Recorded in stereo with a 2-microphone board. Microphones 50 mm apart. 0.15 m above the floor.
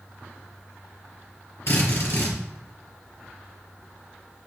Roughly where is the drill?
Left.